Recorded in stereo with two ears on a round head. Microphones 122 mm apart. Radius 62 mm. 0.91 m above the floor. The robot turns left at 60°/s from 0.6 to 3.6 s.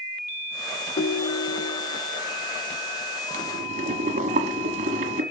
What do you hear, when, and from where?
1.0 s a ringtone: 105° left, 0.5 m; by 2.0 s 40° left, 0.5 m
3.3 s boiling: 55° right (ahead or behind), 1.3 m; by 5.2 s 60° right (ahead or behind), 1.3 m